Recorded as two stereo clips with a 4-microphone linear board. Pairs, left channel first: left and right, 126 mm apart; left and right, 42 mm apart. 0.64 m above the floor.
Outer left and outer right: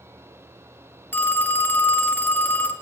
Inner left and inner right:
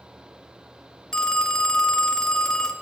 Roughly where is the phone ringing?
Centre.